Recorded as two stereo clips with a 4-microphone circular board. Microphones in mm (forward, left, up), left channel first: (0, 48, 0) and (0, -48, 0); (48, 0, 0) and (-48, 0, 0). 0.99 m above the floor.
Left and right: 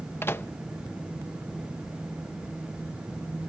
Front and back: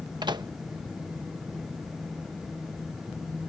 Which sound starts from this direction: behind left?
A microwave, at 0.2 s.